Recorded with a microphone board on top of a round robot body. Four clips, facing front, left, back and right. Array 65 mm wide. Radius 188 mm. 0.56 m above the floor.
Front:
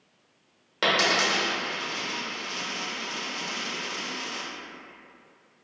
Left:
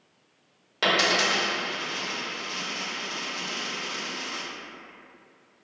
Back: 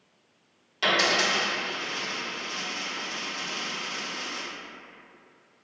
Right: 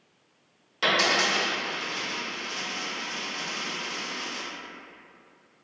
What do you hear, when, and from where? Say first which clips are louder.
0.8 s a dropped coin: left 1 dB, even; 30° left, 1.1 m